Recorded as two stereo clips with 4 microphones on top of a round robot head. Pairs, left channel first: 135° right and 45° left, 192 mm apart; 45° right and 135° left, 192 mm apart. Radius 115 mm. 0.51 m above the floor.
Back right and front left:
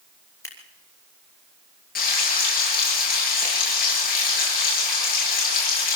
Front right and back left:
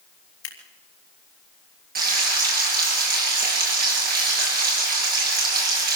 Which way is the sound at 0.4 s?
60° right.